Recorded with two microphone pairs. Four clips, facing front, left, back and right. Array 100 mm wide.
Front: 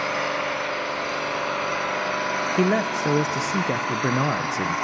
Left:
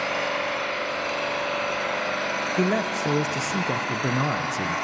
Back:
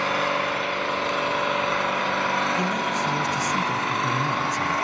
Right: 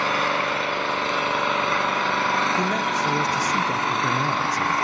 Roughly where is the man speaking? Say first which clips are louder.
Right 1 dB, front 3 dB; ahead.